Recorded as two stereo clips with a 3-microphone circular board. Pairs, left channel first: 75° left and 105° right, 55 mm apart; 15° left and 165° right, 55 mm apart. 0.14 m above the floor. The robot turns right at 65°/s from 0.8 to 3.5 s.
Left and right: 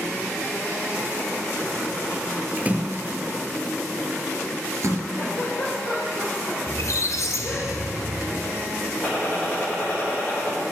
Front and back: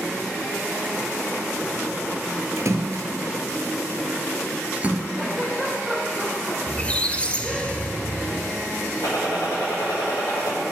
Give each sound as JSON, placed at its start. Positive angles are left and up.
{"t": 2.6, "sound": "a splash", "azimuth_deg": -170, "distance_m": 0.8}
{"t": 5.2, "sound": "a giggle", "azimuth_deg": 100, "distance_m": 3.0}
{"t": 6.7, "sound": "a squeak", "azimuth_deg": 80, "distance_m": 0.7}
{"t": 9.0, "sound": "a gunshot", "azimuth_deg": 10, "distance_m": 3.5}